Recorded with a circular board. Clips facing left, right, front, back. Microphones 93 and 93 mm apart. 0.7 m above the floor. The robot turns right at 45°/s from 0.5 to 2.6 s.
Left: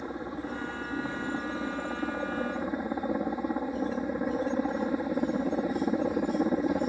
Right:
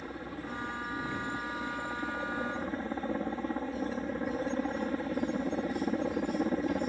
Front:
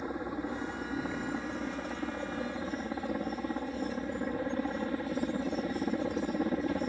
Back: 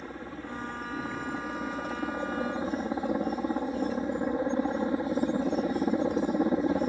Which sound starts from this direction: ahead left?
A helicopter, at 0.0 s.